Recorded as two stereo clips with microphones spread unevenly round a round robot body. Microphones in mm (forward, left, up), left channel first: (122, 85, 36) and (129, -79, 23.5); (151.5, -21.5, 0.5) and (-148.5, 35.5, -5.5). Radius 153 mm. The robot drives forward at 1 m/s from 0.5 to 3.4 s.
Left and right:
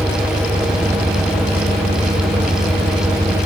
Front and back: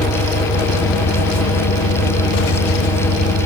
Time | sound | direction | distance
0.0 | an engine running | 15° right | ?